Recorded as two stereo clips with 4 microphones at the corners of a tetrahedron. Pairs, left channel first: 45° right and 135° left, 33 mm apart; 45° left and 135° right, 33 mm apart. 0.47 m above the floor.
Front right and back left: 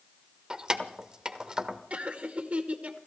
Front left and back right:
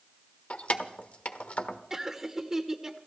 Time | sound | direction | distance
0.5 | keys jangling | 75° left | 1.1 m
1.9 | laughter | 155° left | 1.6 m